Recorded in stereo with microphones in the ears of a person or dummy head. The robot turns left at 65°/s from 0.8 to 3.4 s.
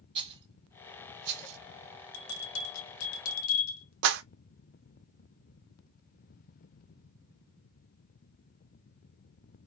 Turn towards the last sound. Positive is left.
turn(degrees=-70)  # may be behind; listen again after turning